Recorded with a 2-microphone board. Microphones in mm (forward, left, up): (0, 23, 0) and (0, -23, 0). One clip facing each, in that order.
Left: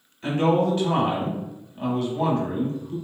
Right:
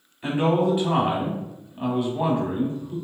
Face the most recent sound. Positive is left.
turn(degrees=-15)  # may be behind; listen again after turning